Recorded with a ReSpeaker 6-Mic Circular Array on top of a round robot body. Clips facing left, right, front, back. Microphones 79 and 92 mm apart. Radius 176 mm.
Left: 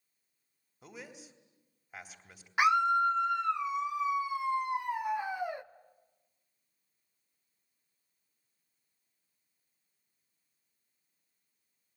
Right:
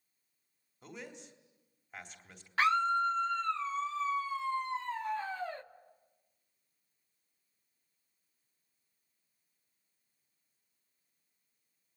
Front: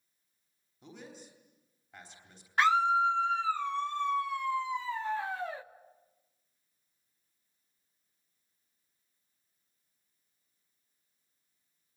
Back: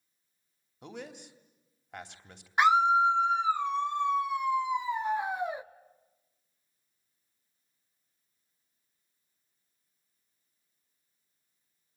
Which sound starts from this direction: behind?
A man speaking, at 0.8 s.